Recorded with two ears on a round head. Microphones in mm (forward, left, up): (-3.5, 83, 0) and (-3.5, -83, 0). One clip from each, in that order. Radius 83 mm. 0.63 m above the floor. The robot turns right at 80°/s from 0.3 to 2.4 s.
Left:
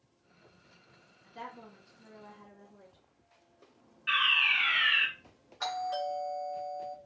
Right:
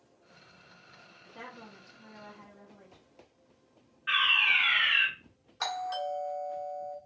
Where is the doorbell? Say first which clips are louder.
Even; 30° right (ahead or behind), 1.1 m.